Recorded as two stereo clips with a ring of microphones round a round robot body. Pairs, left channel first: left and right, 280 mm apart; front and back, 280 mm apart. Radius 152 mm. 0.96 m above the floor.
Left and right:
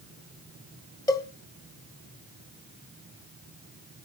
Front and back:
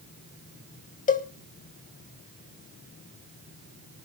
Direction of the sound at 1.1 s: 25° left.